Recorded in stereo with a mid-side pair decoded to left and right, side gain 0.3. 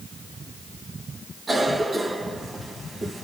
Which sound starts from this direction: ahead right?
A cough, at 1.5 s.